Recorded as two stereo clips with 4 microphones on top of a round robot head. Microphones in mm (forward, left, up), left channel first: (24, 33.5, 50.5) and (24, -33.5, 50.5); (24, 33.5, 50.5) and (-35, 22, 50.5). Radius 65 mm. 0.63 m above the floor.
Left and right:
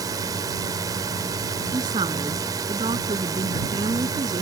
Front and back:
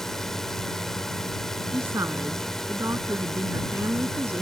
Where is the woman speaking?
110° right.